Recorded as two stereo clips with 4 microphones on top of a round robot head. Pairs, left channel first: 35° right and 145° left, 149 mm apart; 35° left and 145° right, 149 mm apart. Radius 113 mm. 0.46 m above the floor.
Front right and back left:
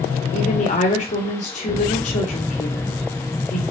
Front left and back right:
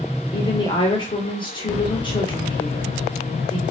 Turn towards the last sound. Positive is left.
turn(degrees=-15)